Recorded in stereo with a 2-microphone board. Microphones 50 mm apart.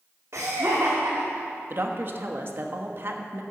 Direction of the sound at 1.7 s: 45° right (ahead or behind).